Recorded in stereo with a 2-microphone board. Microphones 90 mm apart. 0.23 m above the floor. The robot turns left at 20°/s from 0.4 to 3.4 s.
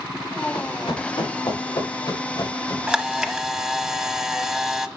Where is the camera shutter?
10° right (ahead or behind), 0.9 m; by 4.9 s 5° right (ahead or behind), 0.9 m.